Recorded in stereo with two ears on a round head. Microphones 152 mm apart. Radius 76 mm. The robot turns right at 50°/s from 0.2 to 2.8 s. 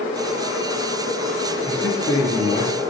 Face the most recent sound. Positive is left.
turn(degrees=60)